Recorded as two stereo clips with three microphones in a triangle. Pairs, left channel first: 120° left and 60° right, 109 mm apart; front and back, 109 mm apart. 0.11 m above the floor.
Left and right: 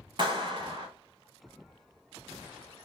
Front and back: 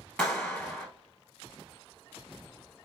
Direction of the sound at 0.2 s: 80° right.